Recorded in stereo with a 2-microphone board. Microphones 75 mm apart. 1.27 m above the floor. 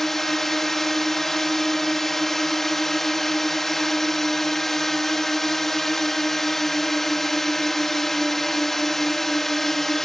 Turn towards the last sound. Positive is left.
turn(degrees=5)  # may be behind; listen again after turning